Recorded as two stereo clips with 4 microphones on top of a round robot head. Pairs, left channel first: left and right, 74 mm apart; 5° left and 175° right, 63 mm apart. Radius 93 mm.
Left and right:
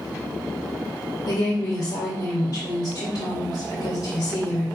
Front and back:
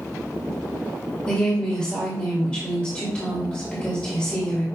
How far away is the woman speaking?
About 1.9 m.